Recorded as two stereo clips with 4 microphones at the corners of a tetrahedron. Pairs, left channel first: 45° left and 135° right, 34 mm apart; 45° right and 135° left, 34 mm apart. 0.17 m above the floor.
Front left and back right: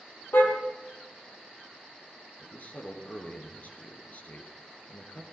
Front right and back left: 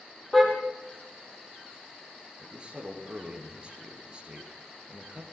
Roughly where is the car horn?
Ahead left.